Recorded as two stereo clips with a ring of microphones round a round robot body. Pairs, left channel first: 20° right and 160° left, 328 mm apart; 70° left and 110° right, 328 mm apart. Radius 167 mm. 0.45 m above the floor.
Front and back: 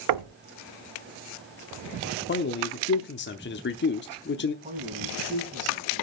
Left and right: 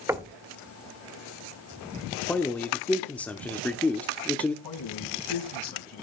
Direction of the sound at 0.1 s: 165° left.